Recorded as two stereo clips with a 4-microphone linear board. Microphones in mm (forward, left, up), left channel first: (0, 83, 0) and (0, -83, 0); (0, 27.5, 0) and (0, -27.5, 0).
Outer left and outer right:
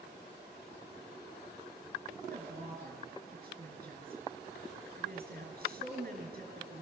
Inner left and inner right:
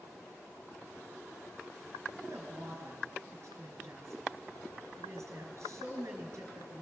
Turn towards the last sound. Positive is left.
turn(degrees=-60)  # may be behind; listen again after turning